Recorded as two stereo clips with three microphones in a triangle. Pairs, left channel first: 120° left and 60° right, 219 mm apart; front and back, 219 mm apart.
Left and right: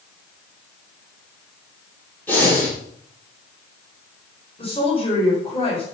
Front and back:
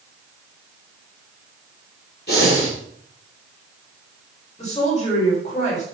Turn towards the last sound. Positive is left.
turn(degrees=55)